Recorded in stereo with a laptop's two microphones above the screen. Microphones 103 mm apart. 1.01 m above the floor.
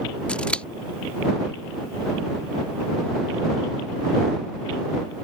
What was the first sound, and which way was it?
Scissors, 10° left (ahead or behind).